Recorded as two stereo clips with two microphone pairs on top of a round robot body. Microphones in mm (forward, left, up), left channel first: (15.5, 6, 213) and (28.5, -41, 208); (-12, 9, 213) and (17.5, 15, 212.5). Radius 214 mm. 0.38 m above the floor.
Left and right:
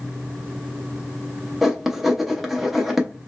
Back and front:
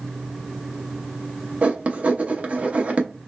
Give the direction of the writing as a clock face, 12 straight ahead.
12 o'clock.